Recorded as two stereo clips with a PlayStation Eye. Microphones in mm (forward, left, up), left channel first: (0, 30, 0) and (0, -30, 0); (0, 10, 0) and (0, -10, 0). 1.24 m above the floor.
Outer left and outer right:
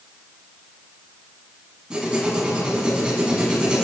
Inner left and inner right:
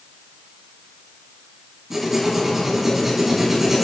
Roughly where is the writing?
Centre.